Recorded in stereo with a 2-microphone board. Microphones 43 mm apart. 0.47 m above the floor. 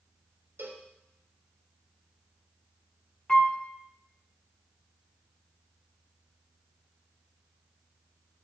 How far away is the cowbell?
About 0.8 m.